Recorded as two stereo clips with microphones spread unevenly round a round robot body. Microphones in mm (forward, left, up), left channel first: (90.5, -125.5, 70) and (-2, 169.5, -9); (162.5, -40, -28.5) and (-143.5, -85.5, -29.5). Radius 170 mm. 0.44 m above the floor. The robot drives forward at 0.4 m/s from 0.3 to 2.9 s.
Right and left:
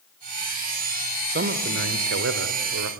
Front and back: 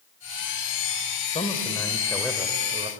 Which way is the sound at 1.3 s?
75° left.